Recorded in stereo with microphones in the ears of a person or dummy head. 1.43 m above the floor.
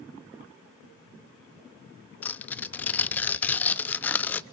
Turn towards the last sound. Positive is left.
turn(degrees=10)  # may be behind; listen again after turning